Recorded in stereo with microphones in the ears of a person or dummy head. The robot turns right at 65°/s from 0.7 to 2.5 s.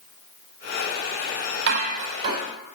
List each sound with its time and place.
1.7 s dishes clattering: 65° right (ahead or behind), 5 m; by 2.4 s 20° right (ahead or behind), 5 m